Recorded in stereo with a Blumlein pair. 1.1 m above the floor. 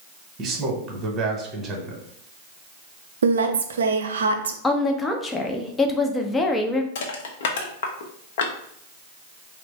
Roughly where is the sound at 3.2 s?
Ahead right.